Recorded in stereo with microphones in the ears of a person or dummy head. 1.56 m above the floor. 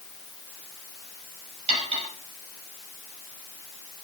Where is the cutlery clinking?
40° right (ahead or behind), 6 m.